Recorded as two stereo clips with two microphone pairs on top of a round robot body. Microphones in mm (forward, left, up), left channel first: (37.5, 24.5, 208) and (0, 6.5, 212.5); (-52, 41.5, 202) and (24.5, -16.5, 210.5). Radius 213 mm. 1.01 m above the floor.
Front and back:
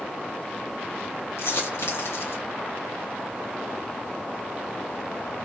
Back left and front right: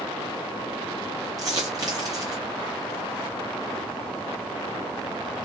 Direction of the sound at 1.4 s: 10° left.